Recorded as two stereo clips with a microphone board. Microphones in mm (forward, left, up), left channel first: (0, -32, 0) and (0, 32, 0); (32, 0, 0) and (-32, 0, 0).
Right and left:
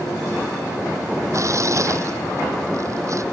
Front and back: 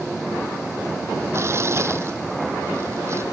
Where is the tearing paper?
130° left.